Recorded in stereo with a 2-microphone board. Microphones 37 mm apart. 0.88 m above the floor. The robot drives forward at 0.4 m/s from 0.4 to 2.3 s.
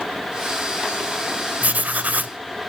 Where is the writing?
45° right (ahead or behind), 0.8 m.